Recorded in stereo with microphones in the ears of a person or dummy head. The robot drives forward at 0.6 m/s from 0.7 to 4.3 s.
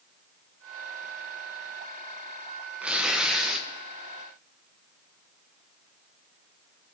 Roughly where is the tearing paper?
Centre.